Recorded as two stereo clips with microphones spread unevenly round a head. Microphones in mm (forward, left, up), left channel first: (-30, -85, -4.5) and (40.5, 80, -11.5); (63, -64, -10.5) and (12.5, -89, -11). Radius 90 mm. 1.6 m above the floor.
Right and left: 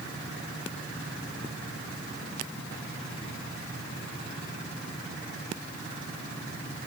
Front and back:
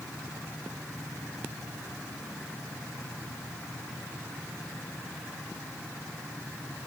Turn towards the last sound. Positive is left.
No sound to turn to.